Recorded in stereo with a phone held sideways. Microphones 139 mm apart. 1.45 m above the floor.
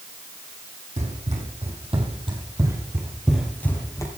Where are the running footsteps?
60° right (ahead or behind), 4 m; by 4.1 s 25° left (ahead or behind), 2.5 m.